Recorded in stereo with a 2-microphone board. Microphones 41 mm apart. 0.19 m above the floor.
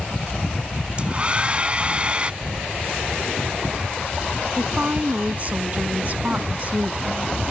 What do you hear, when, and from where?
1.0 s a hair dryer: 30° right (ahead or behind)
2.4 s keys jangling: 70° right (ahead or behind)
4.6 s a woman speaking: 40° right (ahead or behind)